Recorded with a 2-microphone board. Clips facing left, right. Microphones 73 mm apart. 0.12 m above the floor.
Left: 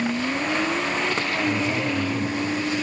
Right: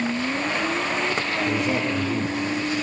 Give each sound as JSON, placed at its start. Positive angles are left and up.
{"t": 1.4, "sound": "a man speaking", "side_deg": -65, "distance_m": 6.5}